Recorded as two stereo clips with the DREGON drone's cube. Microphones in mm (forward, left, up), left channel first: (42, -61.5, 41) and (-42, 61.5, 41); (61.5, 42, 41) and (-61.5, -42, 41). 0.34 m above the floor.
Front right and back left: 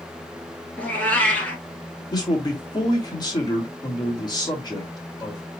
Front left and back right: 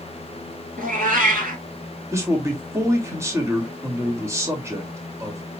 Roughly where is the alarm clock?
No alarm clock in this recording.